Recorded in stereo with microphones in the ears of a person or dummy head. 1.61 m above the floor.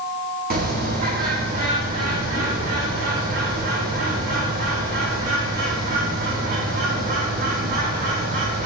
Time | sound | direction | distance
0.5 | a bird | 40° right (ahead or behind) | 0.7 m